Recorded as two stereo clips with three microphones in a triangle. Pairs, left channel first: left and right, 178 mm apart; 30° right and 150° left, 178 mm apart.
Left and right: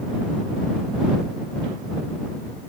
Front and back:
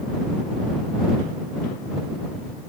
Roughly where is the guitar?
No guitar in this recording.